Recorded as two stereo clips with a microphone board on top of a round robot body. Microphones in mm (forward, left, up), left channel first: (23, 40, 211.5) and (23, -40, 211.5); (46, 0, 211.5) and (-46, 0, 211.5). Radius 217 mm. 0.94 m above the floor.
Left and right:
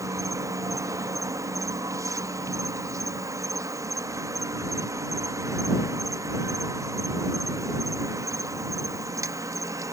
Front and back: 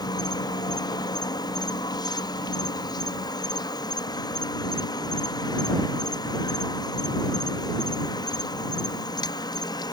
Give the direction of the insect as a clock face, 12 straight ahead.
1 o'clock.